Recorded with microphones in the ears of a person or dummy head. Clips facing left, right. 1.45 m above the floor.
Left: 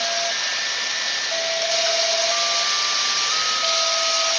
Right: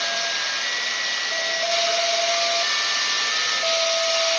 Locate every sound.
0.0 s running water: 80° left, 9.5 m